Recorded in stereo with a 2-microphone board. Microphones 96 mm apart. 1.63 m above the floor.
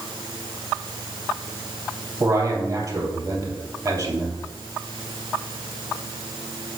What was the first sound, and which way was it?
A man speaking, 40° right (ahead or behind).